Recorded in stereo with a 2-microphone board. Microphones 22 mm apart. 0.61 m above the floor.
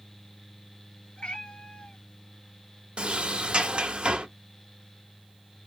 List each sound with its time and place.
1.2 s a cat meowing: 60° left (ahead or behind), 3 m
3.0 s a sliding door: 55° right (ahead or behind), 0.9 m